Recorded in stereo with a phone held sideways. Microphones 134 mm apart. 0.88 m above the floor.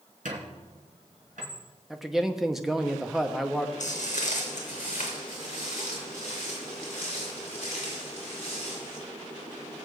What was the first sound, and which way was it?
A squeak, 75° right (ahead or behind).